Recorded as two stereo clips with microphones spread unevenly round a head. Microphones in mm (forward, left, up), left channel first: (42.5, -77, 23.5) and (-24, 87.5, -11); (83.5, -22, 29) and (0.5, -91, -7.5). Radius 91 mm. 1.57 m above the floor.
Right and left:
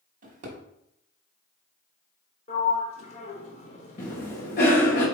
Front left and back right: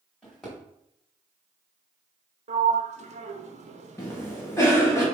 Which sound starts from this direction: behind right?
A sliding door, at 2.5 s.